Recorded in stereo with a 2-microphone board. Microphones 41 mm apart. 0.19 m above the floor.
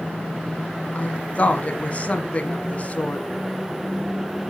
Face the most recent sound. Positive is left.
turn(degrees=35)  # may be behind; listen again after turning